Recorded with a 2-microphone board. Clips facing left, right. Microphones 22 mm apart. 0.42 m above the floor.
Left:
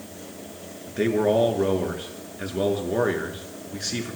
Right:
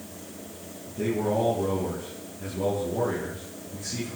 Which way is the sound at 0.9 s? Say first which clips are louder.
Left 5 dB; 80° left.